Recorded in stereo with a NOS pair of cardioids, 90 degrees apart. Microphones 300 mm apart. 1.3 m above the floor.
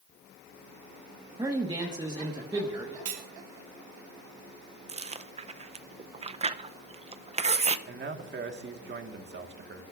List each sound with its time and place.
1.4 s a man speaking: 15° right, 1.5 m
3.0 s cutlery clinking: 65° right, 1.5 m
4.9 s chewing: 20° right, 0.6 m
7.9 s a man speaking: 35° right, 1.7 m